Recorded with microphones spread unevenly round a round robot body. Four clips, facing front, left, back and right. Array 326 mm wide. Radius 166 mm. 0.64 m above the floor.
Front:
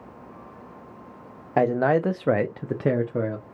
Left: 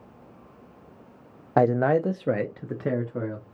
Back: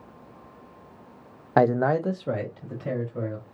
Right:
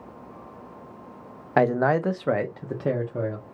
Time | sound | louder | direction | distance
1.6 | a man speaking | even, even | 150° left | 0.5 m